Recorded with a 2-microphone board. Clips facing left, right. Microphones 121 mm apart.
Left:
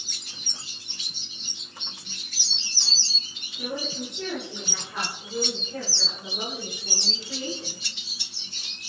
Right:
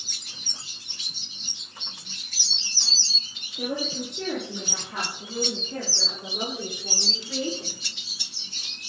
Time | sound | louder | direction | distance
3.6 | a woman speaking | right 3 dB | 60° right (ahead or behind) | 8 m